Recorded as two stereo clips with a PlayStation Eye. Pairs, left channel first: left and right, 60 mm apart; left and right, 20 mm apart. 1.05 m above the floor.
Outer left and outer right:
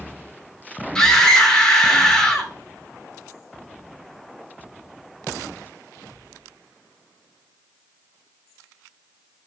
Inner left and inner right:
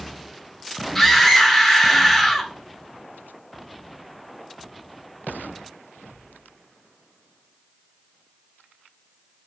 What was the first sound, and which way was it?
A scream, 10° left (ahead or behind).